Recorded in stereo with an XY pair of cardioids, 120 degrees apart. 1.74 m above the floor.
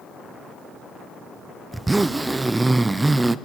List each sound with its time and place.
1.7 s a zipper: 15° right, 0.8 m